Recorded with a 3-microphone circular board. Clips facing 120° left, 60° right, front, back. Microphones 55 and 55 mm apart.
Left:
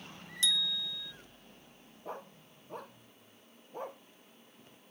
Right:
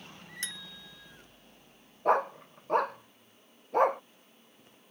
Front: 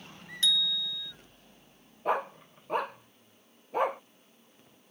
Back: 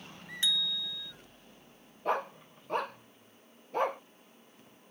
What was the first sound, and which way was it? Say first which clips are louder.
A bicycle bell: left 12 dB, front 3 dB; 105° right.